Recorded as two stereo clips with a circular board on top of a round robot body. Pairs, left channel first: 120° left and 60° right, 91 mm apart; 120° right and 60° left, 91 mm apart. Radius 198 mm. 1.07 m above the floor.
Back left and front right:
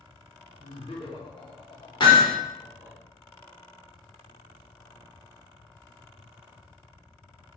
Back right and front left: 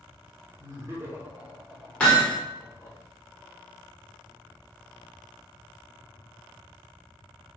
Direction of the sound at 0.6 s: 110° left.